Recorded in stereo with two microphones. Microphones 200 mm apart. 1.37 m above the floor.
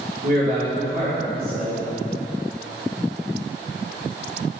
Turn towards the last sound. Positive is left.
turn(degrees=-45)  # may be behind; listen again after turning